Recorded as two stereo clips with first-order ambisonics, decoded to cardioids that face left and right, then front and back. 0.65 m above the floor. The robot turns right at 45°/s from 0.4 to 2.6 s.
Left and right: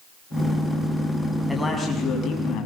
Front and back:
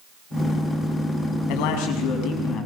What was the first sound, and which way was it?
A man speaking, straight ahead.